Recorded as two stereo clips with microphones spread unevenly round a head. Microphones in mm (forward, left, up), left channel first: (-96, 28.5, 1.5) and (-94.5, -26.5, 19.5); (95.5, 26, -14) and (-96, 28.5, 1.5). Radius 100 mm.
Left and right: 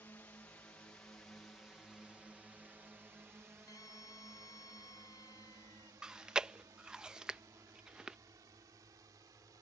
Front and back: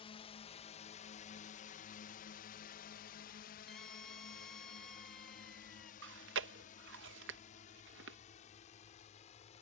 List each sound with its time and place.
0.0 s a drone: 50° left; by 9.6 s 60° right
3.7 s a scream: 90° left
6.0 s chewing: 160° right